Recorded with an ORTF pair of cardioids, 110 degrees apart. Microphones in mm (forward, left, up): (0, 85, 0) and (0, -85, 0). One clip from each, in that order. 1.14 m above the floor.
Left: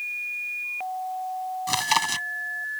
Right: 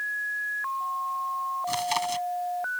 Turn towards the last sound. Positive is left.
turn(degrees=45)